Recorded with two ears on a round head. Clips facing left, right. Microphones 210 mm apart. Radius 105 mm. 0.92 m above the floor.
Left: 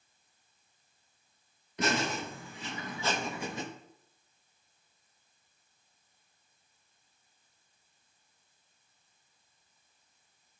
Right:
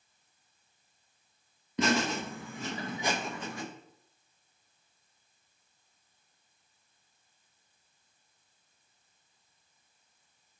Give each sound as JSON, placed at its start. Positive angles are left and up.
{"t": 1.8, "sound": "laughter", "side_deg": -65, "distance_m": 0.9}